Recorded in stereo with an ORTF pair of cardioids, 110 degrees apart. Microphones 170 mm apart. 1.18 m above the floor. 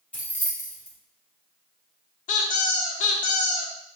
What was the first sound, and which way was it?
Keys jangling, 10° left.